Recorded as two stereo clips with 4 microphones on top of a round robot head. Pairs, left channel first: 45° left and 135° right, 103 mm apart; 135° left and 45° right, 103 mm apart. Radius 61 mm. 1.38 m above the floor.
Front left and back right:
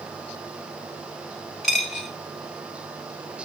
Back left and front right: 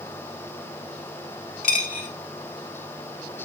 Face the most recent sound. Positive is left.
turn(degrees=130)